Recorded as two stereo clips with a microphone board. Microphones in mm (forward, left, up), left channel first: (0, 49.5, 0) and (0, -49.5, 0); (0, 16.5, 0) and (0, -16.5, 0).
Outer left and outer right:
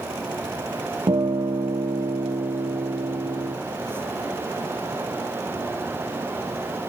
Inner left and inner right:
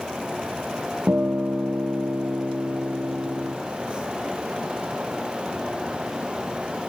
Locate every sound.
1.1 s a guitar: 60° right (ahead or behind), 2.5 m